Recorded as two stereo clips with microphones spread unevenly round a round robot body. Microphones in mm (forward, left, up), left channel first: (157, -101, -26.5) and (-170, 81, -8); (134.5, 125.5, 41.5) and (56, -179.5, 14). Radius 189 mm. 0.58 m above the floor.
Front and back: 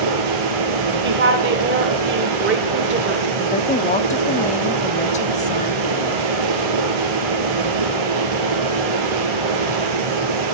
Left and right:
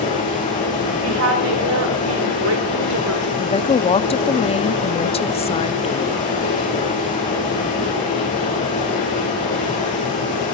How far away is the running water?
About 3.5 m.